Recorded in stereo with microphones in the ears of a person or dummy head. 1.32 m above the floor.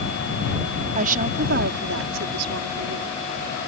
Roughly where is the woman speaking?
Right.